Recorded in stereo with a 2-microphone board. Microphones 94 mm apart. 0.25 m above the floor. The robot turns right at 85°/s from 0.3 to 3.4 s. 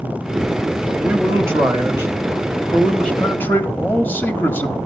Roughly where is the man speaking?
Centre.